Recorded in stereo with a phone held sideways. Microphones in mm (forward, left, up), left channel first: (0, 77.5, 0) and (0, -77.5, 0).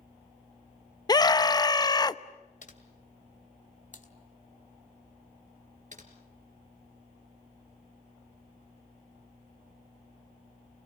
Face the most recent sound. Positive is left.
turn(degrees=-55)  # may be behind; listen again after turning